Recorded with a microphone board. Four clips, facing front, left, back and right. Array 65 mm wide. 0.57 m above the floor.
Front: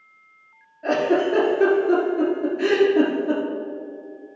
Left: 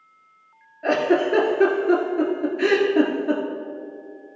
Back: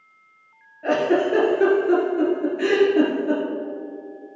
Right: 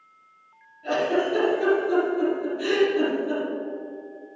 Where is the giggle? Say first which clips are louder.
Left 4 dB, even; 110° left, 2.5 m.